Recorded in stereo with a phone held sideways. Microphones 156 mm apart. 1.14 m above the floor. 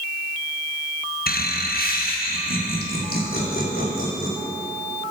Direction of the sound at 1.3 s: 75° left (ahead or behind).